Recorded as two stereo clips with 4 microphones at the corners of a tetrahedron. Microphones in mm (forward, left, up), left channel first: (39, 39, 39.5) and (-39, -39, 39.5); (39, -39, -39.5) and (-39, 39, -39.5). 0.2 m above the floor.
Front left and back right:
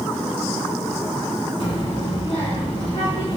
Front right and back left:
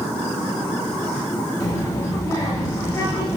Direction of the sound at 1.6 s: 10° left.